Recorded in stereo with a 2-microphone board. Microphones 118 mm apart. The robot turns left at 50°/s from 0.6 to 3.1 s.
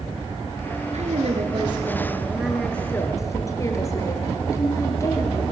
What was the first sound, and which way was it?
A woman speaking, 100° right.